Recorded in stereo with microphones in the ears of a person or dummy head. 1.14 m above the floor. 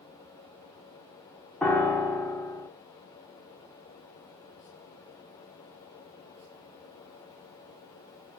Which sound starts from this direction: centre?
A piano, at 1.6 s.